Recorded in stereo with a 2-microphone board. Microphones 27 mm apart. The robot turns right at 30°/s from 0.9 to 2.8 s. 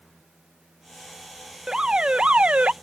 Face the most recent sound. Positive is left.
turn(degrees=-115)